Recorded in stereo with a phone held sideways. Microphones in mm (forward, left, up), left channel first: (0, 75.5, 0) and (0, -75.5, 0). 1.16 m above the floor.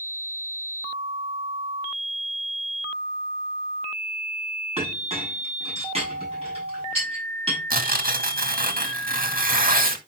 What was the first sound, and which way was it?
A clink, 40° right (ahead or behind).